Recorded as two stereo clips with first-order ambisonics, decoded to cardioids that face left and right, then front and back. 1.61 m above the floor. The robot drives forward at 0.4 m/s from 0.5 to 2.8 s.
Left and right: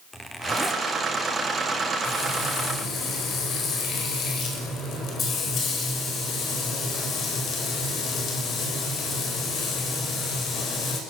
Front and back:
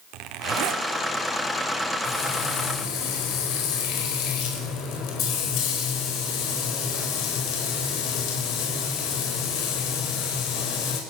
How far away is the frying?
About 5 m.